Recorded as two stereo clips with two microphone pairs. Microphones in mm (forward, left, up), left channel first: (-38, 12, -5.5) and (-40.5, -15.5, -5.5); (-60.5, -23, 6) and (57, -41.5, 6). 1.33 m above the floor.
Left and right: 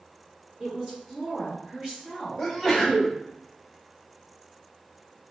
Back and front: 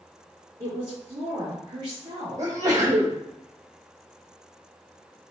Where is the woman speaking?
40° right, 1.4 m.